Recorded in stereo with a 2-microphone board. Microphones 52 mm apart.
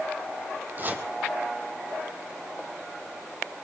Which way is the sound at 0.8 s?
40° right (ahead or behind).